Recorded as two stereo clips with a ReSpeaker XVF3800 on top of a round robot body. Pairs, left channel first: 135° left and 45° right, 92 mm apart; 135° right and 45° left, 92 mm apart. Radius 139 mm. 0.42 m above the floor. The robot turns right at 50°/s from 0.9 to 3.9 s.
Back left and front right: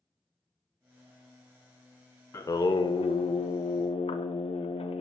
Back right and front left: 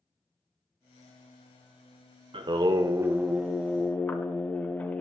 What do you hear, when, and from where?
2.3 s singing: 70° left, 0.6 m; by 5.0 s 150° left, 0.6 m